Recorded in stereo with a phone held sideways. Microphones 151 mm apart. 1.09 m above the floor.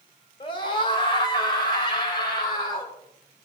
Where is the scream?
35° left (ahead or behind), 3.5 m; by 2.9 s 30° left (ahead or behind), 7 m.